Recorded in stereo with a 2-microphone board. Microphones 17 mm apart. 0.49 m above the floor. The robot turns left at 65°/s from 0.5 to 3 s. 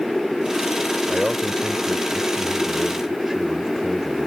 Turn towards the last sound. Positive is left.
turn(degrees=-160)